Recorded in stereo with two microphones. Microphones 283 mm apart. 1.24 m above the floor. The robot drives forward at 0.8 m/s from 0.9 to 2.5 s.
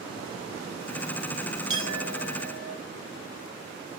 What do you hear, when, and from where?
1.7 s a clink: 80° right, 6 m; by 2.7 s 85° right, 5.5 m